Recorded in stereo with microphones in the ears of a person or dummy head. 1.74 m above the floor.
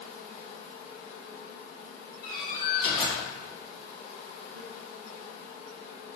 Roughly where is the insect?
Left.